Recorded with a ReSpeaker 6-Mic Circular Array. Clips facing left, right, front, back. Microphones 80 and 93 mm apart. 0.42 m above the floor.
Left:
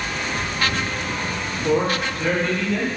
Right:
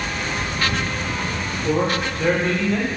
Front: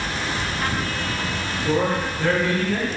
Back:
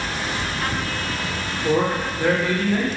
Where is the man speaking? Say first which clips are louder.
Left 1 dB, back 1 dB; 140° left, 0.7 m; by 2.9 s 80° right, 0.9 m.